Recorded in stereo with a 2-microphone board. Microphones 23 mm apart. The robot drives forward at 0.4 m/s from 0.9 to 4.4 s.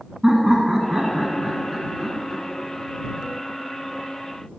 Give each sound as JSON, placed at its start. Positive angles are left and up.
{"t": 0.2, "sound": "laughter", "side_deg": -20, "distance_m": 1.1}